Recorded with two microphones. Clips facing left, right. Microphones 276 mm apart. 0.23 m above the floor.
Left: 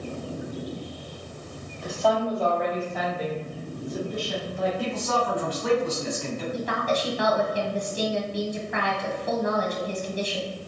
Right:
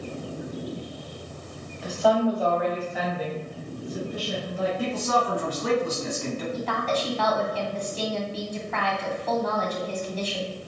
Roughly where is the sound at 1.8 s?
Centre.